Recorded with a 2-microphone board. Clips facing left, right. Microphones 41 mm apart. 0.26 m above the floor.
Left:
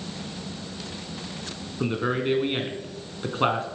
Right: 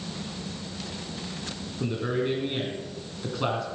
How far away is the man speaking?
About 2.5 m.